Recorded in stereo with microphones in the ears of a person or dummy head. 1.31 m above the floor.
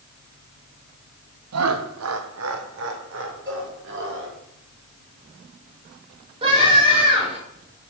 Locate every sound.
1.5 s laughter: 75° right (ahead or behind), 0.6 m; by 4.4 s 65° right (ahead or behind), 2 m
3.5 s a cowbell: 20° right (ahead or behind), 3.5 m
6.4 s a scream: 35° right (ahead or behind), 4 m